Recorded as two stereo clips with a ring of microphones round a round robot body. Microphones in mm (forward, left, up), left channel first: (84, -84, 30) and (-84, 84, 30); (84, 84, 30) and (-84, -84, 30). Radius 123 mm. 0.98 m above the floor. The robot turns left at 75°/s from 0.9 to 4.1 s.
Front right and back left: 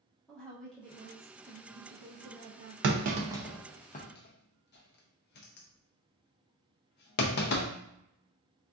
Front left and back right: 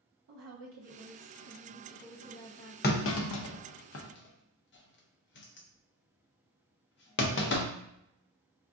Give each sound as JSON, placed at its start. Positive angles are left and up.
{"t": 0.3, "sound": "a woman speaking", "azimuth_deg": -130, "distance_m": 0.6}
{"t": 2.8, "sound": "a clunk", "azimuth_deg": 95, "distance_m": 0.5}